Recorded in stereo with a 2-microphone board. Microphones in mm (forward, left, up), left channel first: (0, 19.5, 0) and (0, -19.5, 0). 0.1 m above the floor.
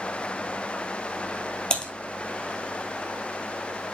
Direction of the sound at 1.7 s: 25° left (ahead or behind).